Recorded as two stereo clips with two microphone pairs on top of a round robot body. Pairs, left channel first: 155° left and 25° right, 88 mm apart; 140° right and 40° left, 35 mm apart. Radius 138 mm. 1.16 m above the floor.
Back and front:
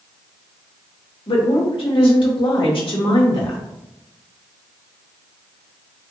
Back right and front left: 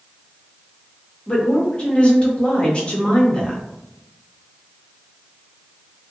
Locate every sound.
1.3 s a woman speaking: 160° left, 1.9 m